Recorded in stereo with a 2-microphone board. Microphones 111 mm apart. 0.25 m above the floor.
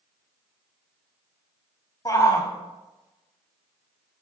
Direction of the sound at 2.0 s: 35° left (ahead or behind).